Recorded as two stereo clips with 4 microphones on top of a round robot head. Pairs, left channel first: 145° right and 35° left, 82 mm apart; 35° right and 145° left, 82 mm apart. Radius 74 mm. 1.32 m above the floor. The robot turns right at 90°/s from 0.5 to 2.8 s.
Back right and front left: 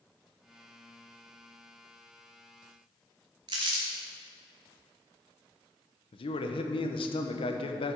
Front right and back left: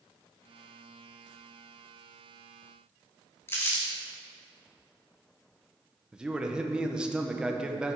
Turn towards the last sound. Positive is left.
turn(degrees=-135)